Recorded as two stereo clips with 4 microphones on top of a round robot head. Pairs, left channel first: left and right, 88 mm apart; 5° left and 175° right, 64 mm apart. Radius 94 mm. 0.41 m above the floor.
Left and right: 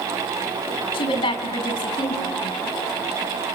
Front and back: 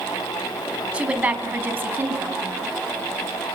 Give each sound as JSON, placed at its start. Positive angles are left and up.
{"t": 0.9, "sound": "a woman speaking", "azimuth_deg": 115, "distance_m": 4.0}